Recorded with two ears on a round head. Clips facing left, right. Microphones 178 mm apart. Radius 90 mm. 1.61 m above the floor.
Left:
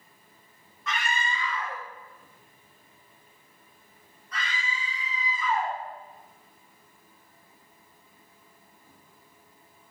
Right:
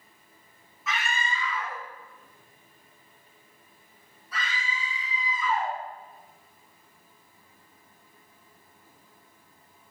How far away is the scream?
About 2.0 m.